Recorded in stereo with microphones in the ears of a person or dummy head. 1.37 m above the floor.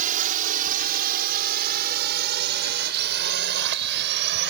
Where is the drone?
45° right (ahead or behind); by 4.5 s 60° right (ahead or behind).